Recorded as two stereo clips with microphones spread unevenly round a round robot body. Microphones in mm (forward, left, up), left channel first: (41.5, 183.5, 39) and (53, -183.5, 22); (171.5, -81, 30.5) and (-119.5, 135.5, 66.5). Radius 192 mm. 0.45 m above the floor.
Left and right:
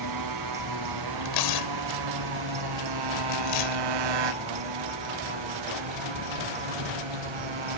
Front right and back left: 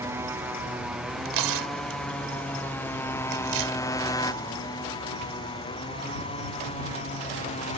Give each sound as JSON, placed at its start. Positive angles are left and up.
{"t": 0.0, "sound": "a motorcycle", "azimuth_deg": -135}
{"t": 1.2, "sound": "tearing paper", "azimuth_deg": 115}